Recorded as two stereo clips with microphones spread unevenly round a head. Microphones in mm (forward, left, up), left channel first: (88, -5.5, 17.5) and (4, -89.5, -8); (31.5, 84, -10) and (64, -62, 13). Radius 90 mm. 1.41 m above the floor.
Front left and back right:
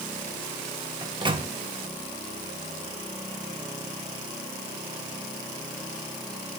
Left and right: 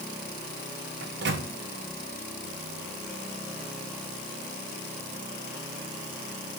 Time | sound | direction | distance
1.0 | a microwave | 85° right | 1.1 m